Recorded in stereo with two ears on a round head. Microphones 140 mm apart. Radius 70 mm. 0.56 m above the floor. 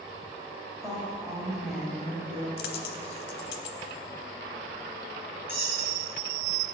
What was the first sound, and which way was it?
A woman speaking, 5° right (ahead or behind).